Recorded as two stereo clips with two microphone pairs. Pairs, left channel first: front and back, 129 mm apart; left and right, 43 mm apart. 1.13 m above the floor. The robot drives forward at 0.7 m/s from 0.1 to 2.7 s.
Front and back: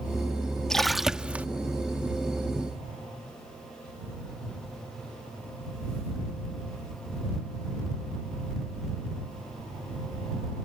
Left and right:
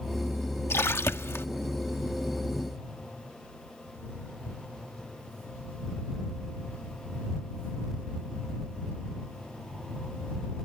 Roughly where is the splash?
Left.